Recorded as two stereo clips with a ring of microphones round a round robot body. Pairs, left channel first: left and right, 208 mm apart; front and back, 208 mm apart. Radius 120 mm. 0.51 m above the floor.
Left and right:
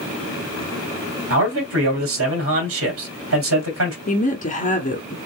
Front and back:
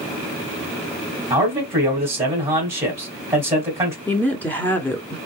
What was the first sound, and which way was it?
A man speaking, 100° right.